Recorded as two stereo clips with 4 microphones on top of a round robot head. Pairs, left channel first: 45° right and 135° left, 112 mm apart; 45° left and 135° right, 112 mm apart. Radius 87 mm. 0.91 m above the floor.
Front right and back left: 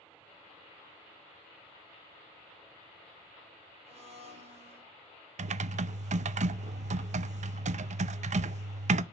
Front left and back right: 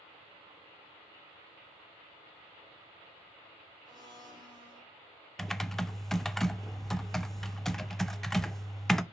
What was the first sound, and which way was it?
A blender, 170° left.